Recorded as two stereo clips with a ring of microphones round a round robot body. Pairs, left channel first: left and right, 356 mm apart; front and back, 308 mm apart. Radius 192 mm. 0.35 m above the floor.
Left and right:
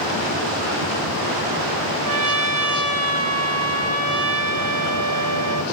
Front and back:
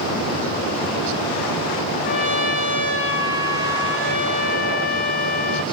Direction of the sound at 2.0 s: 50° right.